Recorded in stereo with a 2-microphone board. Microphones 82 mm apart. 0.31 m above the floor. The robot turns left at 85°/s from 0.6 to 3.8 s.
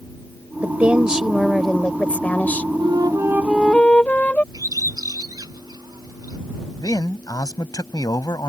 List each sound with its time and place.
0.6 s a woman speaking: 20° right (ahead or behind); by 2.7 s 20° left (ahead or behind)
2.8 s a flute: 110° right; by 4.4 s 165° left
4.5 s a bird: 50° right (ahead or behind)
6.8 s a man speaking: 50° left (ahead or behind)